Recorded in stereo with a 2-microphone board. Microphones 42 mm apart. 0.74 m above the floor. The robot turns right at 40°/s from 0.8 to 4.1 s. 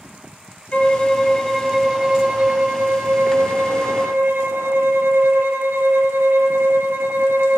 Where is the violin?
155° left, 2.5 m; by 7.6 s 75° right, 2.5 m.